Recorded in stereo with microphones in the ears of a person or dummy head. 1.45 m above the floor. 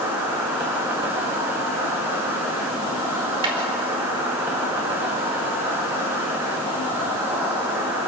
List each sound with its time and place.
0.0 s an insect: 15° right (ahead or behind), 3.5 m
3.4 s a snare drum: 30° right (ahead or behind), 4.5 m